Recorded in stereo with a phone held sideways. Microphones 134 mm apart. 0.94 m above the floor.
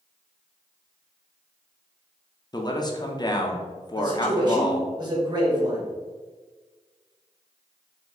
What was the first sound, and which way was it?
A man speaking, 30° left (ahead or behind).